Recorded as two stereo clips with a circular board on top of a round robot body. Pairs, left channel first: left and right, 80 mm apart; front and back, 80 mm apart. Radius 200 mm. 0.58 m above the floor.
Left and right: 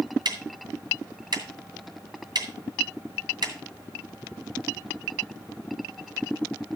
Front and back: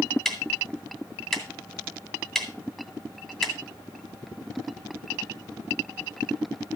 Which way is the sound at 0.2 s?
85° right.